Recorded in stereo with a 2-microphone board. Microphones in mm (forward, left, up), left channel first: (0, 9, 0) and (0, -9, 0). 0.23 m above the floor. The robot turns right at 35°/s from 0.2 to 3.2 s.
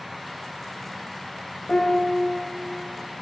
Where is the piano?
55° left (ahead or behind), 5 m; by 2.2 s 35° left (ahead or behind), 5 m.